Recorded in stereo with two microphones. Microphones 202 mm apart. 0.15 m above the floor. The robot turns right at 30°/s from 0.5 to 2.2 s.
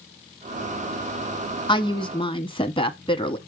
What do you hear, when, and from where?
1.7 s a woman speaking: 20° left (ahead or behind), 1.1 m; by 3.4 s 25° left (ahead or behind), 1.1 m